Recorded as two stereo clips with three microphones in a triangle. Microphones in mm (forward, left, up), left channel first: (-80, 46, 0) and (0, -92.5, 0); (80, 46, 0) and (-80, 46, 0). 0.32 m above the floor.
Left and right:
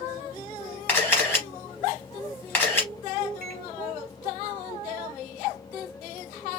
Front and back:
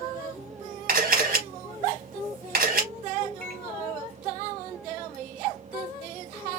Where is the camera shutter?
160° right, 3.5 m.